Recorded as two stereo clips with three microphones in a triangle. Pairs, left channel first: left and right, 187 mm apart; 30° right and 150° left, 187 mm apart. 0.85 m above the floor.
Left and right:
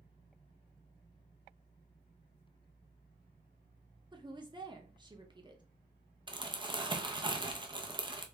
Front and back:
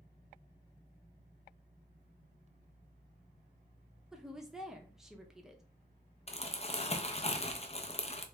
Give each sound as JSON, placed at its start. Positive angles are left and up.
{"t": 4.1, "sound": "a woman speaking", "azimuth_deg": -125, "distance_m": 0.6}
{"t": 6.3, "sound": "crumpling", "azimuth_deg": -45, "distance_m": 0.6}